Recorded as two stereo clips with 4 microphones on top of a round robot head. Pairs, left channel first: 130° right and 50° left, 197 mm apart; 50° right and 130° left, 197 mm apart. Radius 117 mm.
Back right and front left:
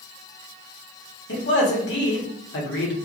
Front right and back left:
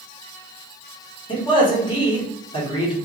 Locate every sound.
1.3 s a man speaking: 115° right, 1.2 m